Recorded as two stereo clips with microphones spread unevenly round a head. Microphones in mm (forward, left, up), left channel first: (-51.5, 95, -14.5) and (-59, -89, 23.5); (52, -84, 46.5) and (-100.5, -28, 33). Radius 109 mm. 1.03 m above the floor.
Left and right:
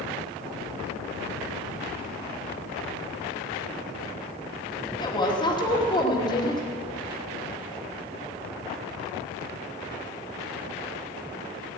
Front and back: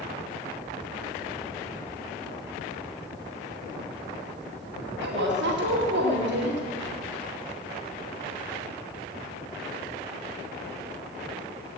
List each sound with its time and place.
5.0 s a woman speaking: 155° left, 2.5 m